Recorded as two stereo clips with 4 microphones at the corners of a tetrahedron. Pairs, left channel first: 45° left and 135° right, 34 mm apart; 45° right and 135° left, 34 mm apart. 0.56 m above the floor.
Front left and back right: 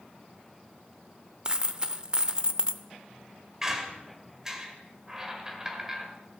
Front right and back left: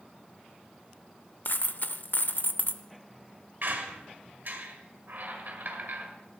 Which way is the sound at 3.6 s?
150° left.